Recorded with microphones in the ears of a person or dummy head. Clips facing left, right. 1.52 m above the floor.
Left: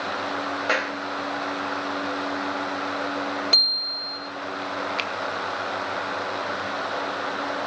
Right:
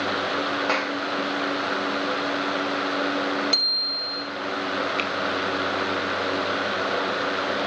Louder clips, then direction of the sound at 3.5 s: Right 2 dB; 5° right (ahead or behind).